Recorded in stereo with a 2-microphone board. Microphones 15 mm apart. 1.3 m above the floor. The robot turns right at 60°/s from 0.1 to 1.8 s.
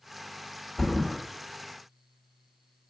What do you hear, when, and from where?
0.8 s a thud: 35° left (ahead or behind), 1.3 m; by 1.2 s 15° left (ahead or behind), 1.3 m